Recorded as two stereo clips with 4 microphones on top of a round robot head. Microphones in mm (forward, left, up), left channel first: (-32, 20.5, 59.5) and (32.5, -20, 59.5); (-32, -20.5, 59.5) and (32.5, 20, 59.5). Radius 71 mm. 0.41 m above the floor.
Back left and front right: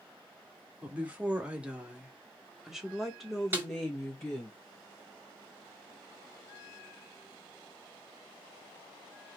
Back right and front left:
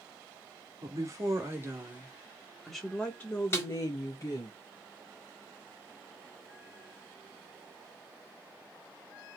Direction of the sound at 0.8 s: 35° left.